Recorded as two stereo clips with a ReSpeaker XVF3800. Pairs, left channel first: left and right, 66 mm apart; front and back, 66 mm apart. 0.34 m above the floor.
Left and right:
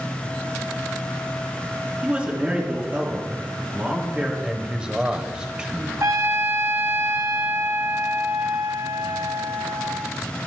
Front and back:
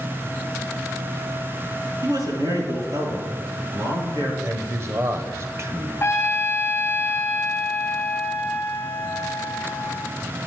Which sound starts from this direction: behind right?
A man speaking, at 2.0 s.